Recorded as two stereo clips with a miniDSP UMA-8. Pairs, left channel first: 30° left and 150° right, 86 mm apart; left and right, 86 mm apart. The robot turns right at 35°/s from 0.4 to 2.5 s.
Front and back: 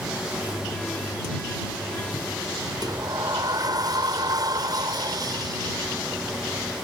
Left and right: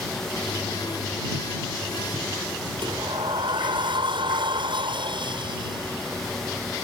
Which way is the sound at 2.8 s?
110° right.